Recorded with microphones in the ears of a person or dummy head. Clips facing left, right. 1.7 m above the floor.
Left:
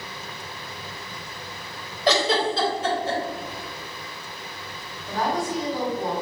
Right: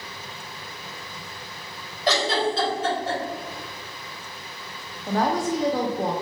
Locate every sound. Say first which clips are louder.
2.1 s a giggle: left 1 dB; 60° left (ahead or behind), 1.8 m
5.1 s a woman speaking: right 3 dB; 45° right (ahead or behind), 0.7 m